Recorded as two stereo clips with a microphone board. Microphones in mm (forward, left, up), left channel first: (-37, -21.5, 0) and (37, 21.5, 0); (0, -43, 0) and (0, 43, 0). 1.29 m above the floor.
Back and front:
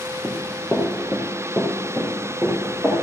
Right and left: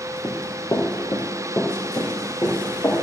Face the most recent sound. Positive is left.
turn(degrees=-35)